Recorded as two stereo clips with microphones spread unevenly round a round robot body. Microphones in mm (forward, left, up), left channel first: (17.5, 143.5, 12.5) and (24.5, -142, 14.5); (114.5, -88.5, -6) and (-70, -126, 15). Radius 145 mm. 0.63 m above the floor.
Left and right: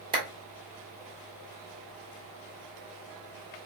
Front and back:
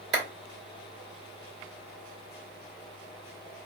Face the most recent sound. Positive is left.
turn(degrees=-160)